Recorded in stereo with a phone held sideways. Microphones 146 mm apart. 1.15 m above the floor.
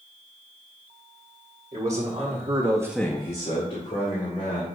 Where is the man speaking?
60° right (ahead or behind), 2 m; by 4.7 s 75° left (ahead or behind), 2.5 m.